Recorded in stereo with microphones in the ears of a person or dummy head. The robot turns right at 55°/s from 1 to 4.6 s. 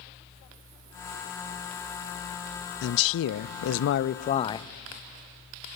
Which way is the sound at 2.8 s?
65° left.